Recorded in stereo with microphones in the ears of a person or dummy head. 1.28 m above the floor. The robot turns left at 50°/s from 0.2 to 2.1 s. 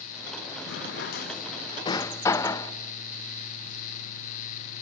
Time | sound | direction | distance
0.7 | a drawer | 65° left (ahead or behind) | 0.7 m